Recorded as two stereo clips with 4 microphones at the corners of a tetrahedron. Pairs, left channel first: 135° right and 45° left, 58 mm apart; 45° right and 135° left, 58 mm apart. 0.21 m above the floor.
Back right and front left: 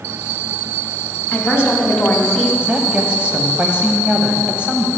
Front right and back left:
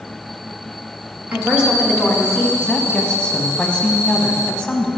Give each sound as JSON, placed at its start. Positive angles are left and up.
{"t": 1.3, "sound": "a woman speaking", "azimuth_deg": -175, "distance_m": 1.8}
{"t": 2.6, "sound": "a woman speaking", "azimuth_deg": 5, "distance_m": 1.0}